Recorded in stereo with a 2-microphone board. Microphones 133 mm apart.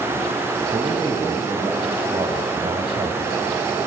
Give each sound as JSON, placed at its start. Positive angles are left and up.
{"t": 0.7, "sound": "a man speaking", "side_deg": -45, "distance_m": 2.5}